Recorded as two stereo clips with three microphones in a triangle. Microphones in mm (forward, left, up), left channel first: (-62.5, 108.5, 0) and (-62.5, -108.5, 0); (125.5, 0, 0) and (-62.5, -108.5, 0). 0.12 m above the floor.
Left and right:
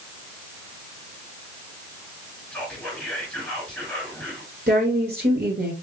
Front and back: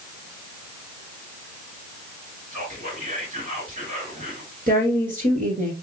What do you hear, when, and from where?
2.5 s whispering: 165° left, 2 m
4.7 s a woman speaking: 110° right, 2 m